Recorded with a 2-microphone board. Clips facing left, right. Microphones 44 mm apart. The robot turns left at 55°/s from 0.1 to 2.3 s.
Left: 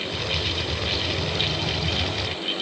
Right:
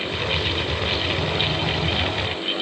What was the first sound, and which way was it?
Only background noise.